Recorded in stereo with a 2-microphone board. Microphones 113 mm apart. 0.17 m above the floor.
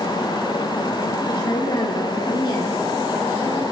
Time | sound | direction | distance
1.3 | a woman speaking | 45° left (ahead or behind) | 7.5 m